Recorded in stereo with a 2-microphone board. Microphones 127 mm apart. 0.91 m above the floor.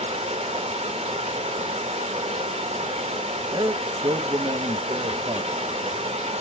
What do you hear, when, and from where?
0.0 s running water: 55° right (ahead or behind), 0.8 m
3.5 s a man speaking: 35° right (ahead or behind), 0.8 m